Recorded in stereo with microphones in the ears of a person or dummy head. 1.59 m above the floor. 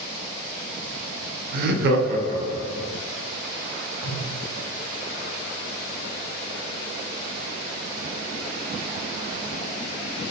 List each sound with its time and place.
1.5 s laughter: 50° right (ahead or behind), 0.6 m; by 2.9 s 20° right (ahead or behind), 1.0 m
4.0 s a whoosh: 60° left (ahead or behind), 1.0 m